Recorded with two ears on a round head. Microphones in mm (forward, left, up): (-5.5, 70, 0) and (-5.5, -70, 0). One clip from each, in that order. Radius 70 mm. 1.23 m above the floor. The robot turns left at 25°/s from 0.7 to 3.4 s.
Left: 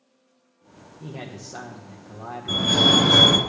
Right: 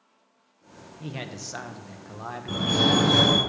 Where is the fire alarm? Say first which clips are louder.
Left 5 dB; 20° left (ahead or behind), 3.5 m; by 3.4 s 40° left (ahead or behind), 3.5 m.